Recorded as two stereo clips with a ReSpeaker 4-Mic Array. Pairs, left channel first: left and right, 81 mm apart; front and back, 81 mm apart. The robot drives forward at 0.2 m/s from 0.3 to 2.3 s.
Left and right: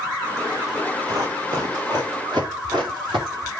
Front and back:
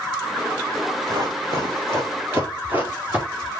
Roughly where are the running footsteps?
Behind right.